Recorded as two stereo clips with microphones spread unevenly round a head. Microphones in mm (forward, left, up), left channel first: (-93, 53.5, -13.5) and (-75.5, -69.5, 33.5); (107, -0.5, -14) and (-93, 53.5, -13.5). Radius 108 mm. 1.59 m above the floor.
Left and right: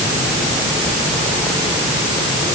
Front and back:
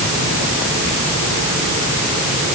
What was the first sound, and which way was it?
Only background noise.